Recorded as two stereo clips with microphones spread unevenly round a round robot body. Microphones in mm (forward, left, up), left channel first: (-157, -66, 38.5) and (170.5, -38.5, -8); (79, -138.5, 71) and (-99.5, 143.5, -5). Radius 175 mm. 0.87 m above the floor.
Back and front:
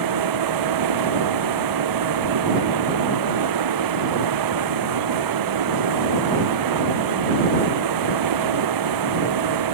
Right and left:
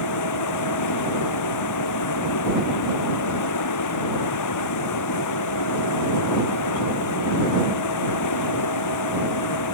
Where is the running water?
20° right.